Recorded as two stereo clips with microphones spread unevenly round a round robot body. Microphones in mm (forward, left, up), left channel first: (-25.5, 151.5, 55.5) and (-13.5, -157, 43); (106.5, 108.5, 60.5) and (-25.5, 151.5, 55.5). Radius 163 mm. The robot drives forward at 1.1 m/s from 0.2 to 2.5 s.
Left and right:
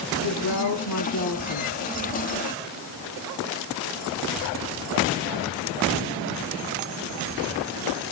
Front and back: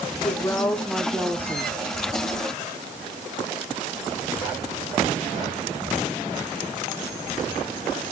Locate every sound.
0.2 s a woman speaking: 50° left, 2.5 m; by 1.8 s 100° left, 2.0 m